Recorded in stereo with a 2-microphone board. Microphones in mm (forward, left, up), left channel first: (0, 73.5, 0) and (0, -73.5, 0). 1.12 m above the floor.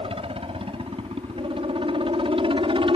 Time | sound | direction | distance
0.0 | a helicopter | 40° right (ahead or behind) | ?